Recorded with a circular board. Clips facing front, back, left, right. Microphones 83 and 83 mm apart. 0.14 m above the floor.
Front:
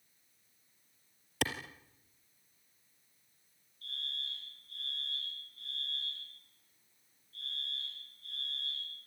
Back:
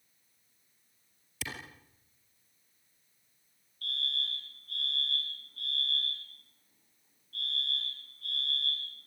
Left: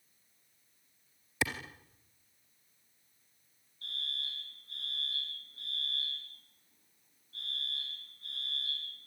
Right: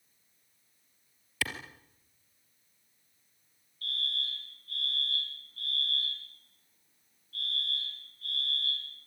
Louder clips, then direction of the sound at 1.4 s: Front 7 dB, left 2 dB; 20° left.